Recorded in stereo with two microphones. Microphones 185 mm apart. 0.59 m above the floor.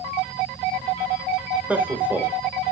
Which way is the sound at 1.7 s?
10° right (ahead or behind).